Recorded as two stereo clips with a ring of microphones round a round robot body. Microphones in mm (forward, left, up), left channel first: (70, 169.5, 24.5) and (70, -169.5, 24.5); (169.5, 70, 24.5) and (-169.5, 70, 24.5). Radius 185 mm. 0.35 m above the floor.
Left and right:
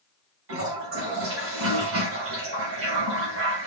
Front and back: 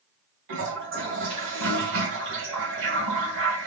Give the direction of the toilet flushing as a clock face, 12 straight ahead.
4 o'clock.